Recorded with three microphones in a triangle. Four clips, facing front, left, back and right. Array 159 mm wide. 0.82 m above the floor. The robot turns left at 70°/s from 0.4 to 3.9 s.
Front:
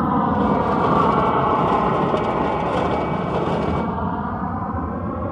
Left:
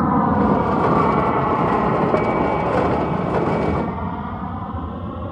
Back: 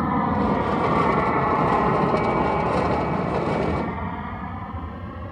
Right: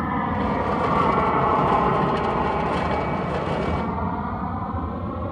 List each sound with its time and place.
0.0 s an aircraft: 65° left; by 5.3 s 5° right